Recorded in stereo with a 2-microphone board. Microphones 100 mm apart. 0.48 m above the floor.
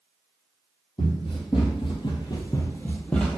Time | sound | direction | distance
1.0 | running footsteps | 60° left (ahead or behind) | 1.0 m